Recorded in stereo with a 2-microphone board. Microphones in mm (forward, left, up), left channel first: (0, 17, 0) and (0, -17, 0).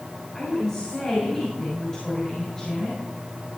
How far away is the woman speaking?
About 5 m.